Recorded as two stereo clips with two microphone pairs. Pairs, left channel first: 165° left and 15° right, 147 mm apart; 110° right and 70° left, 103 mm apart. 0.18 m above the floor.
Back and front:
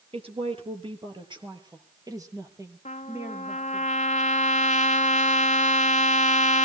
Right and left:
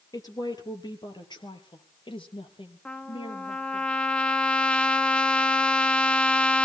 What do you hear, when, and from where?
0.1 s a woman speaking: 60° right, 4 m; by 3.9 s 95° right, 4 m
2.9 s a trumpet: 170° left, 0.8 m